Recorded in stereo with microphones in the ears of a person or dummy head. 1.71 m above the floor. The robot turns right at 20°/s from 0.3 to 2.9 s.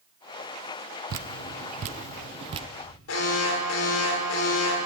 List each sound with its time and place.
1.1 s dripping: 55° right (ahead or behind), 0.7 m; by 2.7 s 25° right (ahead or behind), 0.7 m
3.1 s an alarm: 80° left, 5 m